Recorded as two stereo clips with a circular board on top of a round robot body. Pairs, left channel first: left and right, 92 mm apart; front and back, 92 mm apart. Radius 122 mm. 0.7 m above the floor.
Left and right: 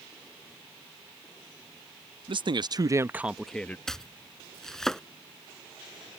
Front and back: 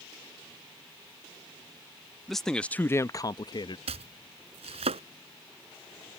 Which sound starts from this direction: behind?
Chopping, at 3.9 s.